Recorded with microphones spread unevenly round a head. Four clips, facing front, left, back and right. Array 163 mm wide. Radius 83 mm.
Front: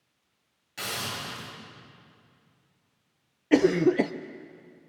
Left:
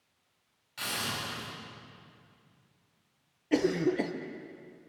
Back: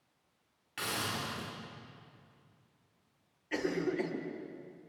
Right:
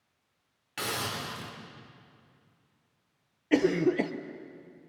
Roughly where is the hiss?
Right.